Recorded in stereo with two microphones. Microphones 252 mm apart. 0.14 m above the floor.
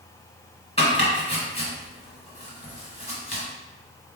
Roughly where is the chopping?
Left.